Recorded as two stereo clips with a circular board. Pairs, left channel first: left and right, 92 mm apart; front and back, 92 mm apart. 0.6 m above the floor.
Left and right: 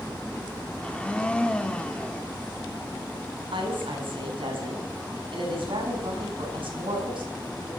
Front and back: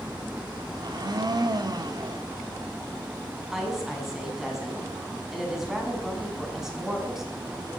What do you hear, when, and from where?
0.8 s a blender: 165° left, 1.5 m
3.5 s a woman speaking: 95° right, 5.5 m